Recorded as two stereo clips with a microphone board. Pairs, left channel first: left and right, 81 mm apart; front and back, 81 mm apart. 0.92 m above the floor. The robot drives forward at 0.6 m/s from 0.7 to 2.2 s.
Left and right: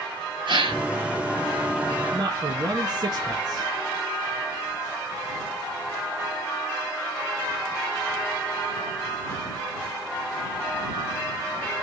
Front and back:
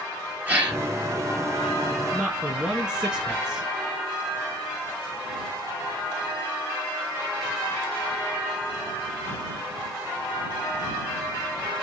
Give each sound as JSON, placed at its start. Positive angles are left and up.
{"t": 0.5, "sound": "a gasp", "azimuth_deg": -110, "distance_m": 3.0}
{"t": 2.1, "sound": "a man speaking", "azimuth_deg": -95, "distance_m": 1.3}